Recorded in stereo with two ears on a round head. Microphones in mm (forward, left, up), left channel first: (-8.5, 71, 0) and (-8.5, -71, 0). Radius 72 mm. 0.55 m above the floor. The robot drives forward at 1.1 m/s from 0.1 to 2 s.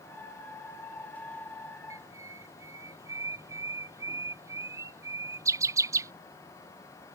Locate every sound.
1.9 s a bird: 20° right (ahead or behind)